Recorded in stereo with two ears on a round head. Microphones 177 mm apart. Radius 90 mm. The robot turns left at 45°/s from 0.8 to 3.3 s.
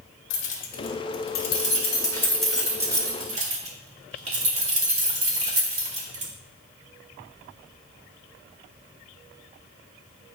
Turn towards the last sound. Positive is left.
turn(degrees=-35)  # may be behind; listen again after turning